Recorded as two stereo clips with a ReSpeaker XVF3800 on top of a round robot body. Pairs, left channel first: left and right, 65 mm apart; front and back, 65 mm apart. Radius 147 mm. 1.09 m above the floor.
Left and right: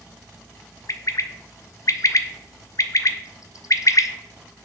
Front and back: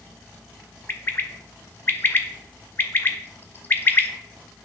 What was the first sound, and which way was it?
A bird, 55° left.